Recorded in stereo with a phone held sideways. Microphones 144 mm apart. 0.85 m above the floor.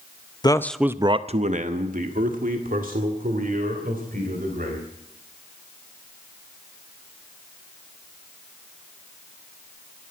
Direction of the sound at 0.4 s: 30° left (ahead or behind).